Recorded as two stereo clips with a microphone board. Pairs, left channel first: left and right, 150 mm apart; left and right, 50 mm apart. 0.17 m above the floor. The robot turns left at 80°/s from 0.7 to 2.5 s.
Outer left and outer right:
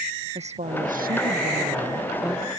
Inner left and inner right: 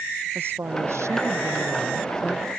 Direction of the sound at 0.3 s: 50° right.